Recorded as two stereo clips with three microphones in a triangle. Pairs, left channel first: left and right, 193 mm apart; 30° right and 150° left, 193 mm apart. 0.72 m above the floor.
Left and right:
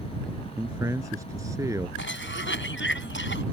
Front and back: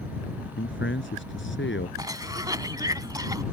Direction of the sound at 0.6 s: 15° right.